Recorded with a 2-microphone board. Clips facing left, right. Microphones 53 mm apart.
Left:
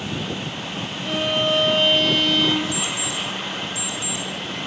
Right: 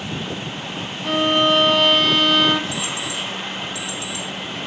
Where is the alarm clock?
75° right (ahead or behind), 2 m.